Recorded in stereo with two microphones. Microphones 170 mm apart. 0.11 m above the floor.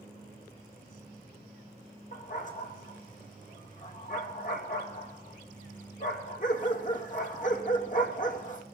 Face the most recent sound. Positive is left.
turn(degrees=50)  # may be behind; listen again after turning